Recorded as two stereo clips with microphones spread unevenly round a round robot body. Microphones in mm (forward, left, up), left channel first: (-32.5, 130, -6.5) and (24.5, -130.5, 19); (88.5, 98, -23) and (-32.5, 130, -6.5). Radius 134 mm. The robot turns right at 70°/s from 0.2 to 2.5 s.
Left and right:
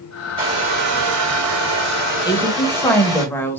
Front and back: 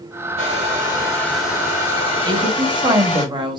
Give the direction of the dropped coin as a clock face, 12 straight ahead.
No dropped coin in this recording.